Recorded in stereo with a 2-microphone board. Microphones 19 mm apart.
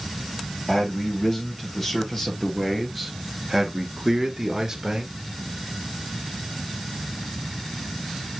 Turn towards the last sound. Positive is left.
turn(degrees=-35)  # may be behind; listen again after turning